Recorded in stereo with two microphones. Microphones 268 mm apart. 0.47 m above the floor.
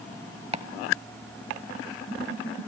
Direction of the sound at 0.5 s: 25° right (ahead or behind).